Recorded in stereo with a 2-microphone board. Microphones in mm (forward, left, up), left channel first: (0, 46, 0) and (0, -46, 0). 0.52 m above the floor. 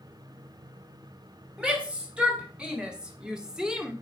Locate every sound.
1.6 s a shout: 10° right (ahead or behind), 3.5 m; by 3.9 s 5° right (ahead or behind), 1.4 m